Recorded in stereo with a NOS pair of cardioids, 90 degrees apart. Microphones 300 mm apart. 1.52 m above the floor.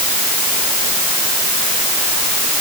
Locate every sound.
Only background noise.